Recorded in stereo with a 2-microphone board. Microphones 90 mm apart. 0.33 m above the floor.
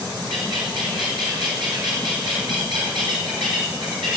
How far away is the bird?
About 4 m.